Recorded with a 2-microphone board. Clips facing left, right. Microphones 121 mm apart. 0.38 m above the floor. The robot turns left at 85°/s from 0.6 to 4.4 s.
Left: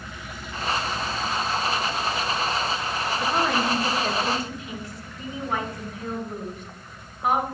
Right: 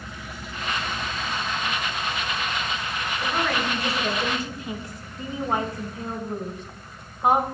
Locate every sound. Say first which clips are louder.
3.2 s a woman speaking: left 2 dB; 55° left, 2 m; by 7.4 s 45° right, 2 m